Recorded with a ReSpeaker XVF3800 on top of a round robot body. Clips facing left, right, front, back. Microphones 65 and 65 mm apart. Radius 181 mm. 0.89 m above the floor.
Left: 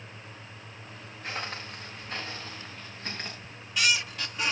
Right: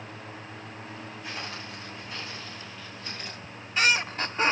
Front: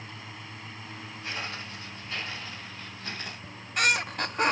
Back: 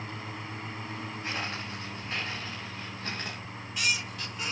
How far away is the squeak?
About 0.6 m.